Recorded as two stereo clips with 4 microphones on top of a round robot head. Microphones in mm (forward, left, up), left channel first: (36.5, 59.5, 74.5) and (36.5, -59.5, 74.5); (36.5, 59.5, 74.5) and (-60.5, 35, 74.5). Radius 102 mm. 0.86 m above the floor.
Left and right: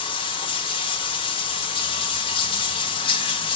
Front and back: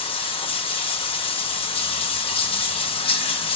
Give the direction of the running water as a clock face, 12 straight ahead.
11 o'clock.